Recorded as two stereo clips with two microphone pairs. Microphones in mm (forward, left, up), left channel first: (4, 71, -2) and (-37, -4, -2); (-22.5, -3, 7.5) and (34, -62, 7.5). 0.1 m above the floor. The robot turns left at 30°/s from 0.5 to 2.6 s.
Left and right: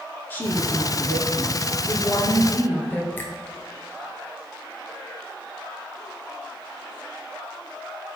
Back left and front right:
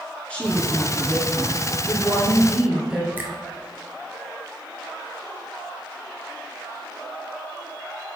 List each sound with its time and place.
0.3 s a woman speaking: 80° left, 1.5 m; by 3.1 s 15° left, 1.5 m
3.2 s a finger snap: 10° left, 1.4 m